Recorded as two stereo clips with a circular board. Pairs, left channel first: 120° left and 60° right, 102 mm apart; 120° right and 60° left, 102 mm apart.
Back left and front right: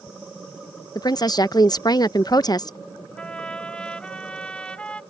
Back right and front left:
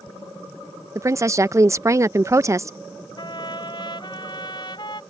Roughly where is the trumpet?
Behind.